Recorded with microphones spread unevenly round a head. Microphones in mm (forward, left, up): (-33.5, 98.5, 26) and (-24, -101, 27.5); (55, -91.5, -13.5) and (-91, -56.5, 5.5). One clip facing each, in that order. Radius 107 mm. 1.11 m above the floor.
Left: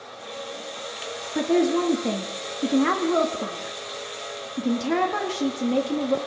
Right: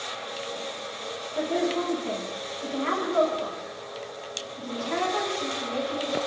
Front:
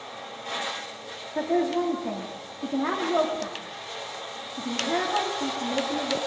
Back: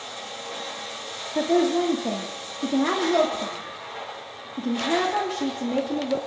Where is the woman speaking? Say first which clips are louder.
Left 6 dB, back 4 dB; 100° left, 2.5 m.